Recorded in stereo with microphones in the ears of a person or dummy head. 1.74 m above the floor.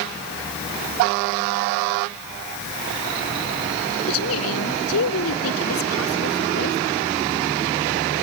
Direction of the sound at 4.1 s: 85° left.